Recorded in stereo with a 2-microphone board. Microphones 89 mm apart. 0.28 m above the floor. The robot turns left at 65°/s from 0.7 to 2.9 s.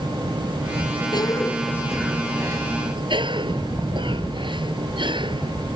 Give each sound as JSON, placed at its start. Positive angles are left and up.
{"t": 1.1, "sound": "a cough", "azimuth_deg": 50}